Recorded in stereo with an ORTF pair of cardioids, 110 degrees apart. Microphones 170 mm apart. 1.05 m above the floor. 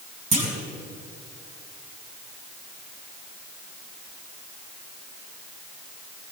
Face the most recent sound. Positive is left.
turn(degrees=-40)